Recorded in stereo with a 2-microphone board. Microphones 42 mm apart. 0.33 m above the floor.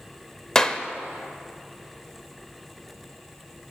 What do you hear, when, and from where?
0.6 s a clap: 15° left (ahead or behind), 0.6 m